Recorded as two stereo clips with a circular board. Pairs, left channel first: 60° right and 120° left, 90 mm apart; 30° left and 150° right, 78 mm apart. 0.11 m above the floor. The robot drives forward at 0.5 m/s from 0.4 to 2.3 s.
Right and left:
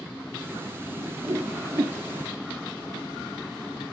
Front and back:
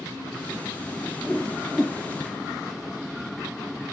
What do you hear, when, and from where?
1.0 s a whoosh: 95° left, 1.4 m; by 1.9 s 120° left, 1.5 m